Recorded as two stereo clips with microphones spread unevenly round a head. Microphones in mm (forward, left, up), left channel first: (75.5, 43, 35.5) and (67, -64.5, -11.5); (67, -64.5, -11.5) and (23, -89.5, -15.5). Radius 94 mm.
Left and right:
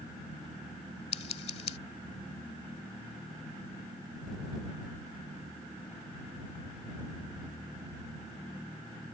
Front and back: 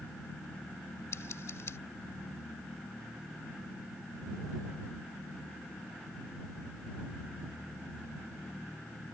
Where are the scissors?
80° left.